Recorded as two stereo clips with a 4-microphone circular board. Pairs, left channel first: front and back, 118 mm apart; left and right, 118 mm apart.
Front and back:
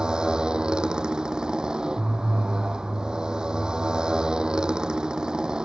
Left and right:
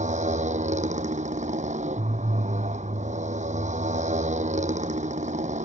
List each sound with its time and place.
0.0 s a motorcycle: 95° right